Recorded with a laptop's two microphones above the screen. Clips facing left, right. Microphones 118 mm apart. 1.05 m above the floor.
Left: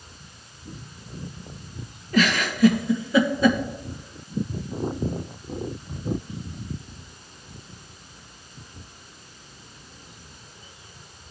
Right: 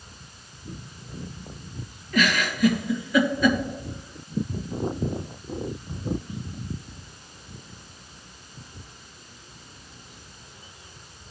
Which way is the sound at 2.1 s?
30° left (ahead or behind).